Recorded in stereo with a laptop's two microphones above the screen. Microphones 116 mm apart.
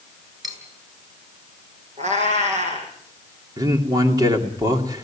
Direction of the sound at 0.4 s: 35° right (ahead or behind).